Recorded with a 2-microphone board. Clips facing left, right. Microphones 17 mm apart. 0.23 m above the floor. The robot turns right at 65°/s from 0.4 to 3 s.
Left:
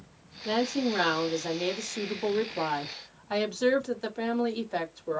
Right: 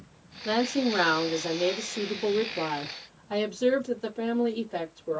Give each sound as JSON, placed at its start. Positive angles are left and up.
{"t": 0.5, "sound": "a woman speaking", "azimuth_deg": -55, "distance_m": 1.2}